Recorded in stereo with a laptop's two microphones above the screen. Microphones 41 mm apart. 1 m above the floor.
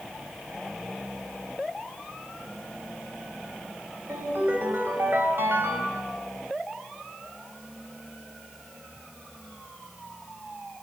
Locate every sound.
4.1 s a ringtone: 60° right (ahead or behind), 4.5 m